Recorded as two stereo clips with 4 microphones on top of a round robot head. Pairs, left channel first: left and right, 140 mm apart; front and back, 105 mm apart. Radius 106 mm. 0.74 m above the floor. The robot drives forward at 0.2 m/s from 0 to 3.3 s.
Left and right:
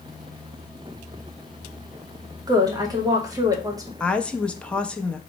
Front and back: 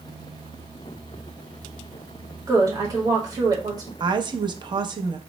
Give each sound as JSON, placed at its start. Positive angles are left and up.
{"t": 2.5, "sound": "a woman speaking", "azimuth_deg": -140, "distance_m": 1.2}
{"t": 4.0, "sound": "a woman speaking", "azimuth_deg": 170, "distance_m": 0.6}